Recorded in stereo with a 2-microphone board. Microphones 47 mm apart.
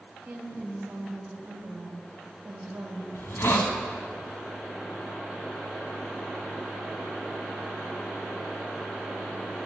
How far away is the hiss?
About 1.3 m.